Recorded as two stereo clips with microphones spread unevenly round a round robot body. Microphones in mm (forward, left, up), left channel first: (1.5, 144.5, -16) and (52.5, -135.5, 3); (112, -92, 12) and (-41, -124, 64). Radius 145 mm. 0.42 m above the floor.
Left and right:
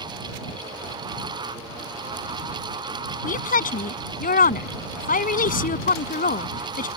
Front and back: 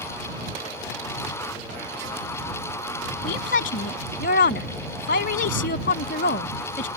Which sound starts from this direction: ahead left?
A woman speaking, at 3.2 s.